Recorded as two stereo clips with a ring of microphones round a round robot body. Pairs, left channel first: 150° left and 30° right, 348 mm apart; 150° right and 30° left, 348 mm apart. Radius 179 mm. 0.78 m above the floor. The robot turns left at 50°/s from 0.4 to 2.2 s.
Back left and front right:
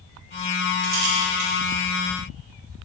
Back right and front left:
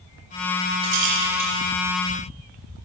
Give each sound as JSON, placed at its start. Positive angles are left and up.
{"t": 0.8, "sound": "a rattle", "azimuth_deg": 15, "distance_m": 3.0}